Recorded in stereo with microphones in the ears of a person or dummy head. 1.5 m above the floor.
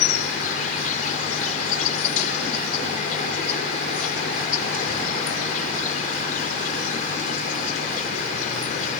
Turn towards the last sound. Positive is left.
turn(degrees=45)  # may be behind; listen again after turning